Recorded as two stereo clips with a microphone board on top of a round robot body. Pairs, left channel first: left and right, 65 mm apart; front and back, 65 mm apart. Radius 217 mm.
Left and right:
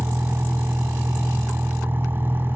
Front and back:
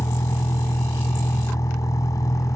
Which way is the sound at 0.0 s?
35° right.